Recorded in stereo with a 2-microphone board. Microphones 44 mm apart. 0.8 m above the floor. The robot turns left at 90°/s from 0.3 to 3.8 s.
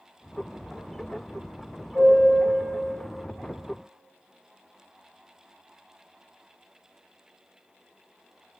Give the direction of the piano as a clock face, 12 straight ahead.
6 o'clock.